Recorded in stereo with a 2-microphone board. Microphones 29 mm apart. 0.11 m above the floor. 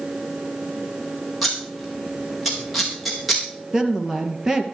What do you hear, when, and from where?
1.4 s scissors: centre (ahead or behind), 3.5 m
3.7 s a woman speaking: 20° right (ahead or behind), 2 m